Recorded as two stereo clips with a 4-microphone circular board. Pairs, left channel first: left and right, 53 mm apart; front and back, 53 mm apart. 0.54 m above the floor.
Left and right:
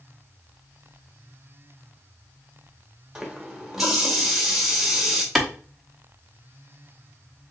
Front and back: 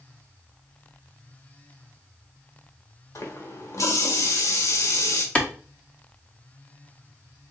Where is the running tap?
5° right, 1.1 m.